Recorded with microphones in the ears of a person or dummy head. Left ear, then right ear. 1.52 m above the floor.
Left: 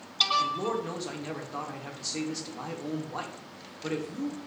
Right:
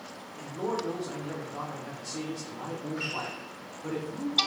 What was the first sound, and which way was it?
A man speaking, 80° left.